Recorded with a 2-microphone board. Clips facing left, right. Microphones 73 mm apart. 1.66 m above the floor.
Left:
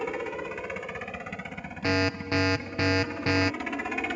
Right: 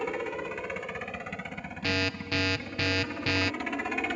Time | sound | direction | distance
0.0 | a helicopter | centre (ahead or behind) | ?
1.8 | an alarm | 25° left (ahead or behind) | ?